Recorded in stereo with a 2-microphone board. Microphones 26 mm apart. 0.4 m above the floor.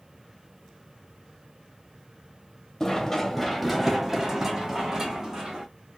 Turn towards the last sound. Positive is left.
turn(degrees=-25)  # may be behind; listen again after turning